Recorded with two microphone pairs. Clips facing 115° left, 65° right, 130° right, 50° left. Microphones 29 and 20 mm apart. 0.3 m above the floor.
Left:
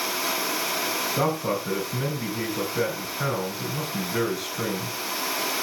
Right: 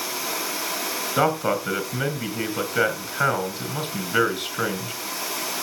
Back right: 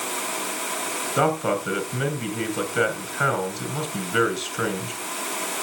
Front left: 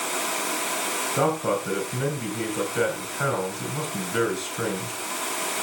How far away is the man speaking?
About 4 m.